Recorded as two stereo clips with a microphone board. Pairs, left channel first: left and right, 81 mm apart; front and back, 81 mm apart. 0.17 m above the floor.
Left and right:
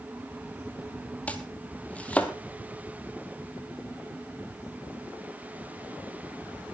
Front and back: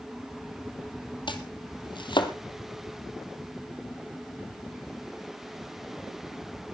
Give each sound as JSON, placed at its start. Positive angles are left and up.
{"t": 1.3, "sound": "chopping", "azimuth_deg": 15, "distance_m": 1.5}